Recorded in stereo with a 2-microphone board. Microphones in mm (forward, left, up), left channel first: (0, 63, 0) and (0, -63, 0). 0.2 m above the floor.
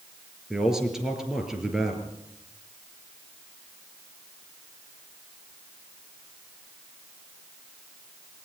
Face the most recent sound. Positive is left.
turn(degrees=-5)  # may be behind; listen again after turning